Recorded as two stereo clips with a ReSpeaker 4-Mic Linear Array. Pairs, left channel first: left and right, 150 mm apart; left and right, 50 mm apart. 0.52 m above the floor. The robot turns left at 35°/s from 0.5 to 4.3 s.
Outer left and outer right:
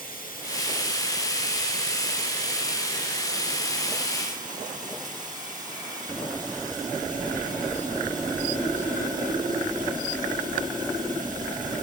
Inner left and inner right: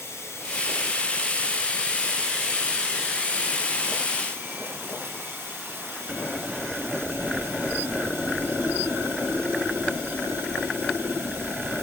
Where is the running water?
75° left, 7.5 m; by 11.8 s 60° right, 7.5 m.